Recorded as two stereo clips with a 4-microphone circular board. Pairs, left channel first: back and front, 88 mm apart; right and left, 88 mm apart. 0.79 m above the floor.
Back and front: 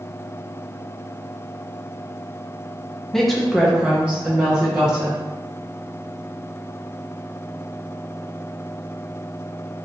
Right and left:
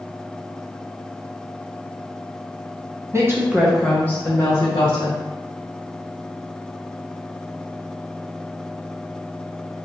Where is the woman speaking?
95° left, 0.6 m; by 5.2 s 65° right, 1.0 m.